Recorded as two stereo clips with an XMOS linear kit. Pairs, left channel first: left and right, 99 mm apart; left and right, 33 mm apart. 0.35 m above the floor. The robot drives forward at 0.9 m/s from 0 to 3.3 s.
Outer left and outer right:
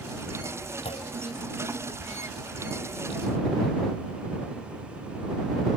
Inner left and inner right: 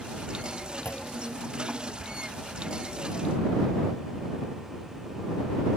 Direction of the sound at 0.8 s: 80° left.